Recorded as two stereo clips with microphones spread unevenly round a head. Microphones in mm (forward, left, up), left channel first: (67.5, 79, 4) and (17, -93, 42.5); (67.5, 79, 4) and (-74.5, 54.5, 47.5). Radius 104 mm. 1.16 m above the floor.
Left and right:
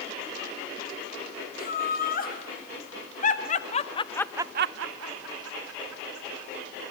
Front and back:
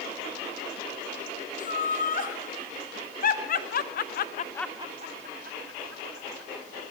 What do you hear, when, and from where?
1.6 s laughter: 35° left, 3.5 m; by 6.5 s 130° right, 2.5 m